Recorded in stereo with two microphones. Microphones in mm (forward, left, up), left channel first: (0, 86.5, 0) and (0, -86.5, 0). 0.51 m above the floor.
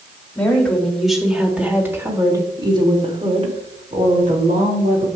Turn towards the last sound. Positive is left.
turn(degrees=-55)  # may be behind; listen again after turning